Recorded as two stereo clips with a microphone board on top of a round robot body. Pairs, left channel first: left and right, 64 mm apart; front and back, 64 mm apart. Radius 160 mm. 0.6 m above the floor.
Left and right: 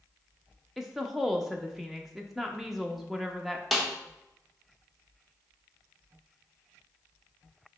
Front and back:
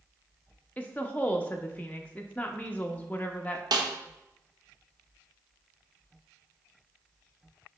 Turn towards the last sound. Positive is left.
turn(degrees=180)